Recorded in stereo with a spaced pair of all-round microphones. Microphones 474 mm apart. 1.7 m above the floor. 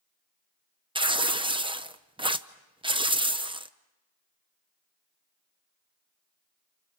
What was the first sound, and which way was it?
Tearing paper, 10° right (ahead or behind).